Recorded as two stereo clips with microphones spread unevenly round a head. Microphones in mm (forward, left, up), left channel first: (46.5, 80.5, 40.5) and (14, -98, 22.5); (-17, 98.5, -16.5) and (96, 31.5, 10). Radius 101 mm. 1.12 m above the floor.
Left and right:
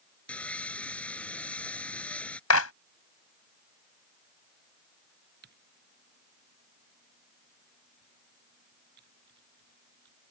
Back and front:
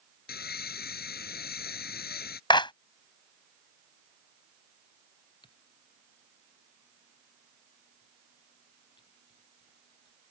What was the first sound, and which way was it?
Sawing, 165° left.